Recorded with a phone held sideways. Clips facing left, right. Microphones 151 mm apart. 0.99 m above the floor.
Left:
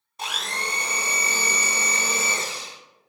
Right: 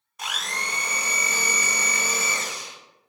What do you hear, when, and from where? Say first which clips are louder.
0.2 s a blender: left 2 dB; 30° left (ahead or behind), 0.6 m